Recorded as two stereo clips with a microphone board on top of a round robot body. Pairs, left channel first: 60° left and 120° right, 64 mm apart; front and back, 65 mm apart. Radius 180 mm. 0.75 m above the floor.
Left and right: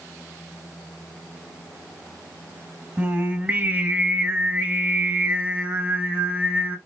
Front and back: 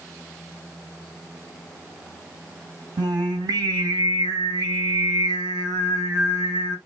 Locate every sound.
3.0 s singing: 170° left, 1.5 m